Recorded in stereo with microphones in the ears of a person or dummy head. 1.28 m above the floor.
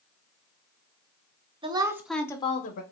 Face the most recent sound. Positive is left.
turn(degrees=50)  # may be behind; listen again after turning